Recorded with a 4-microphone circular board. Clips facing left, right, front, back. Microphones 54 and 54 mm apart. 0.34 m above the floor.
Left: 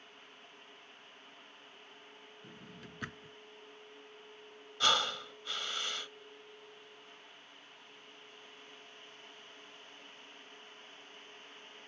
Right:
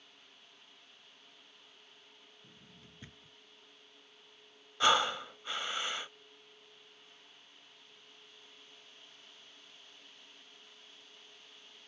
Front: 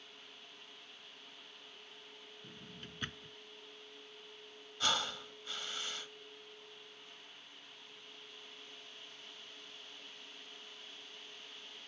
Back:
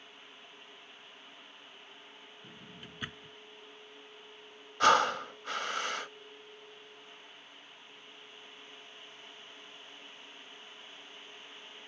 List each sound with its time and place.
2.4 s a drawer: 100° left
4.8 s breathing: 160° right